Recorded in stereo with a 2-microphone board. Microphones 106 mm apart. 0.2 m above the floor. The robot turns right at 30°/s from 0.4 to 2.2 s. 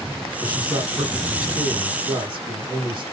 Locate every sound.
0.4 s a man speaking: 125° right, 2.5 m; by 3.0 s 70° right, 2.5 m